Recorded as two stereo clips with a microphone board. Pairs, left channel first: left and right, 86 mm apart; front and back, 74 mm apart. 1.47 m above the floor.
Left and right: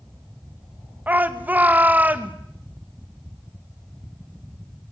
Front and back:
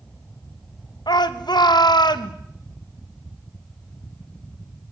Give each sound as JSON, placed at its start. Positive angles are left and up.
{"t": 1.1, "sound": "a shout", "azimuth_deg": -20, "distance_m": 2.0}